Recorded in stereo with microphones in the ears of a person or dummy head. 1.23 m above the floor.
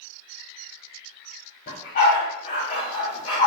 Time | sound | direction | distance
1.7 | a dog barking | 50° left (ahead or behind) | 3.5 m